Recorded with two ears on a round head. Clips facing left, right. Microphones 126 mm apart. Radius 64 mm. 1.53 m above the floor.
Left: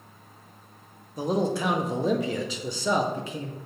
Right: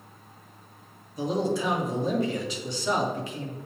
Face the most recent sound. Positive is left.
turn(degrees=75)  # may be behind; listen again after turning